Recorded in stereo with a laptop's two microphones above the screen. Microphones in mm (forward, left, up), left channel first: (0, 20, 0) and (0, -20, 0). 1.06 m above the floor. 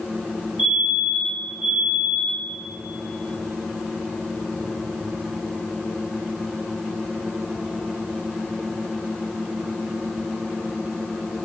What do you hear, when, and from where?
0.6 s a fire alarm: 60° right (ahead or behind), 6 m